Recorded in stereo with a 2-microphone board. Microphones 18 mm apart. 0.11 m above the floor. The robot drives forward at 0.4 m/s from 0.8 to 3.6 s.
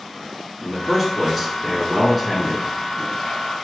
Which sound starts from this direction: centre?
A man speaking, at 0.6 s.